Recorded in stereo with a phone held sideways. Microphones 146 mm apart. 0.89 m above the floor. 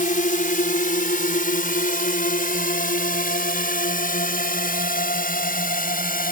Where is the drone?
70° left (ahead or behind); by 6.3 s 75° left (ahead or behind).